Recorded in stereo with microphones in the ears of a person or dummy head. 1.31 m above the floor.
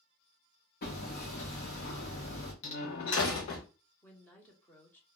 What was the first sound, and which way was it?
Hammering, 50° left (ahead or behind).